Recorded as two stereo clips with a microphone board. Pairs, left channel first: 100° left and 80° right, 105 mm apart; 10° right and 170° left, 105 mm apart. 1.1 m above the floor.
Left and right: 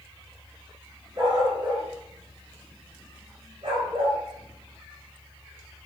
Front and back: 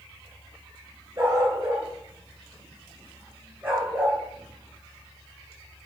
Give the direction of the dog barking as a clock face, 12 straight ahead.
4 o'clock.